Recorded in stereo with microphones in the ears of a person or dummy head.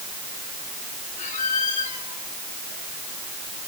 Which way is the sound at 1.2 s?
45° left (ahead or behind).